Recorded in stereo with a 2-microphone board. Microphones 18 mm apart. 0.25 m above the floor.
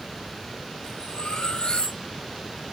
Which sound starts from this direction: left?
Cutlery clinking, at 0.8 s.